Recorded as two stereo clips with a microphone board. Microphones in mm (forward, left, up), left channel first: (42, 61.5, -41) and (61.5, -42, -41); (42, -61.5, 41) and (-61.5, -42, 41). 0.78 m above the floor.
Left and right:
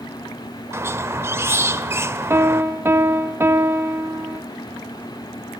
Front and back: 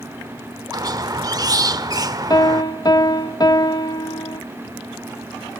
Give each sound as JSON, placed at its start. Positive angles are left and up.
{"t": 0.7, "sound": "a squeak", "azimuth_deg": -140, "distance_m": 0.7}
{"t": 2.3, "sound": "a piano", "azimuth_deg": -30, "distance_m": 1.2}